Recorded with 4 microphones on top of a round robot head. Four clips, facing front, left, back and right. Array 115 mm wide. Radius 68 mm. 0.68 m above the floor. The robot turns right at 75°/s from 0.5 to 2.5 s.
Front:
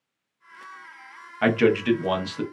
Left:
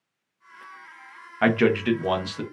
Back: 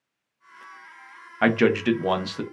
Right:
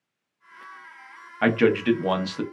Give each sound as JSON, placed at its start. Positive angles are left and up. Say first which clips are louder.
{"t": 1.4, "sound": "a man speaking", "louder": "right 1 dB, even", "azimuth_deg": 160, "distance_m": 0.6}